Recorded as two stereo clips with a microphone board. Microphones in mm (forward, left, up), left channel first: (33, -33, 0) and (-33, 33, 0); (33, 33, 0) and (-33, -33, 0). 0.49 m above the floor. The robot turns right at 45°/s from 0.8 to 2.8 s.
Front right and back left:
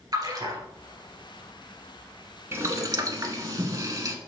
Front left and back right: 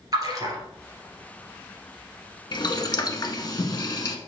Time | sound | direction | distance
0.1 | a splash | straight behind | 1.9 m
2.5 | boiling | 75° left | 1.0 m